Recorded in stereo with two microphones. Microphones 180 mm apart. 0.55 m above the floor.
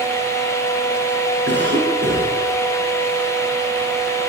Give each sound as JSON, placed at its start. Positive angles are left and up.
{"t": 1.5, "sound": "a cough", "side_deg": -85, "distance_m": 9.5}